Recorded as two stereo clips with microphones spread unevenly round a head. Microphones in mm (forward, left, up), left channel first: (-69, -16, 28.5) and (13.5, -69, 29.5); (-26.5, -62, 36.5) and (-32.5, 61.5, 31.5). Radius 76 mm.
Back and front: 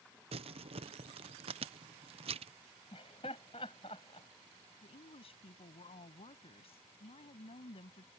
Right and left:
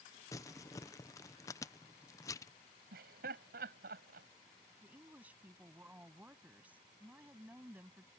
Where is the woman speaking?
170° left.